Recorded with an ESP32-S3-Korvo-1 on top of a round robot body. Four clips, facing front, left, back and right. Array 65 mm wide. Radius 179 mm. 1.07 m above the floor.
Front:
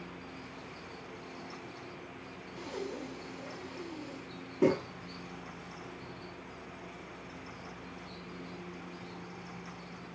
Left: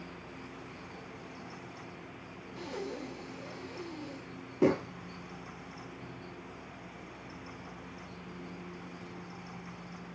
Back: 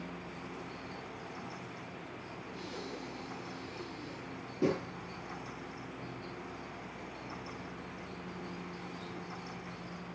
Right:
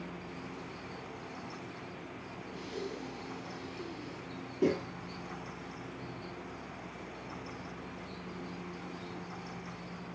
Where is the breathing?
75° left, 0.6 m.